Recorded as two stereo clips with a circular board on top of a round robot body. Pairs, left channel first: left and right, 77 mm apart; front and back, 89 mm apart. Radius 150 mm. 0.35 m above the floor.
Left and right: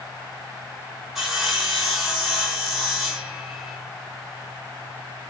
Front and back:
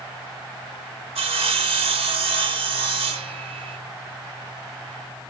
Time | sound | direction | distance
1.1 | sawing | 175° right | 1.5 m